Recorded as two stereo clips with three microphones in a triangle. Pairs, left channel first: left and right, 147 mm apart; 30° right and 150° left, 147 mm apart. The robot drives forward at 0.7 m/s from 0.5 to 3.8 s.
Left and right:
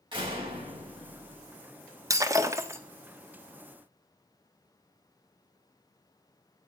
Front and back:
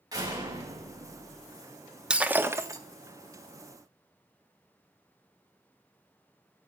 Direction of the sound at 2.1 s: 135° right.